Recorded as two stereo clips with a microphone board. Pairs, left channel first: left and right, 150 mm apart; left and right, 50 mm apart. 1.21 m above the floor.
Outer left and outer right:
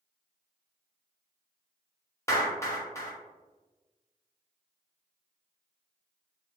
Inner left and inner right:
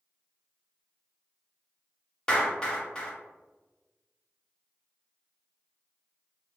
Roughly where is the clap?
Centre.